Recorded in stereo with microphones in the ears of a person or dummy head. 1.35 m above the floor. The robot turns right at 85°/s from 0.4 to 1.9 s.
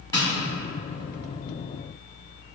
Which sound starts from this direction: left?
Tapping, at 0.1 s.